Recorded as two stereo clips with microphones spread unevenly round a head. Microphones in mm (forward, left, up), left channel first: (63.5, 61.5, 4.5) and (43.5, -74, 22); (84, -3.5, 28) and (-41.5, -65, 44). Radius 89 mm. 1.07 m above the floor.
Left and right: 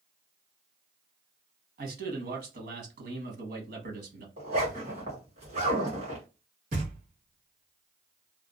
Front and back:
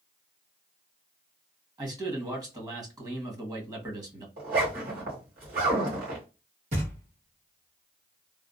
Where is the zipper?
140° right, 2 m.